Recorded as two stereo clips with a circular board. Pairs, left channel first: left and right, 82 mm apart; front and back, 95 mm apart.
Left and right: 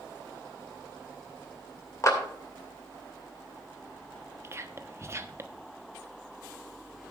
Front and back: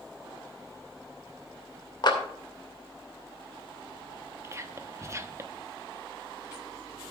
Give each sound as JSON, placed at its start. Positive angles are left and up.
{"t": 2.0, "sound": "a clap", "azimuth_deg": 40, "distance_m": 2.5}
{"t": 4.4, "sound": "whispering", "azimuth_deg": -135, "distance_m": 1.0}